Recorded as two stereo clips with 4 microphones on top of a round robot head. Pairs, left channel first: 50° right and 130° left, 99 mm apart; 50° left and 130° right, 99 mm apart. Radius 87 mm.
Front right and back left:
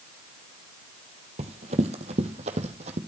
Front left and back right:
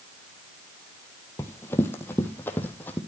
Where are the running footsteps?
120° left, 2 m; by 3.0 s 125° left, 3 m.